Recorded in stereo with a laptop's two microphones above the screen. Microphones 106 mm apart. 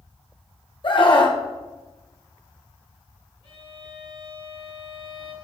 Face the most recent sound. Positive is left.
turn(degrees=55)  # may be behind; listen again after turning